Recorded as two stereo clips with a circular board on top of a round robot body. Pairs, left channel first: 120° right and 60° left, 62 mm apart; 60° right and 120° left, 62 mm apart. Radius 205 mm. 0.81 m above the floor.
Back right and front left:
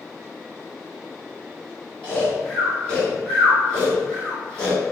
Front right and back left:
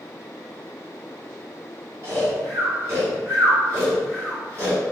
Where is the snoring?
165° left, 1.5 m.